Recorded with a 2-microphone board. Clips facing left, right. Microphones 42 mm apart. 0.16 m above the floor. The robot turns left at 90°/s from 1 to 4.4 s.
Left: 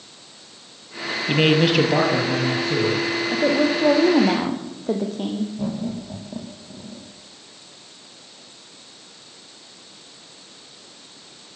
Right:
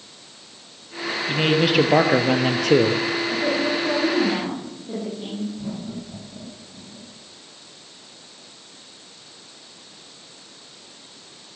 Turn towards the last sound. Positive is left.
turn(degrees=75)  # may be behind; listen again after turning